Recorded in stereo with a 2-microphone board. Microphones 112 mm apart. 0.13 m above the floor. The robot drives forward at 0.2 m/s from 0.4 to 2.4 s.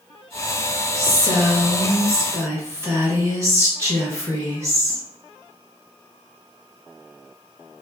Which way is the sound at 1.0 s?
25° right (ahead or behind).